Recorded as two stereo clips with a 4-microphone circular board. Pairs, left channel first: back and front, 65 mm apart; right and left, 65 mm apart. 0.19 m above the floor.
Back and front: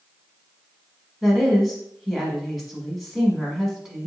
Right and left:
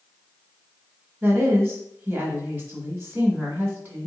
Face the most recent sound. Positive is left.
turn(degrees=90)